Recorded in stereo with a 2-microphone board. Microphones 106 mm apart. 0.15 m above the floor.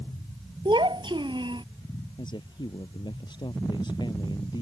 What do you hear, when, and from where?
0.7 s a child speaking: 50° right (ahead or behind)
2.2 s a man speaking: 50° left (ahead or behind)